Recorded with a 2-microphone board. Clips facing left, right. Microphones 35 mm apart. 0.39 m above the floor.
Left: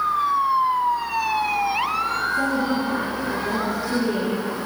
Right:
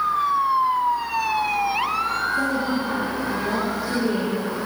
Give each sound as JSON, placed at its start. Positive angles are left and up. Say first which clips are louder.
{"t": 2.3, "sound": "a woman speaking", "louder": "left 1 dB", "side_deg": -10, "distance_m": 9.0}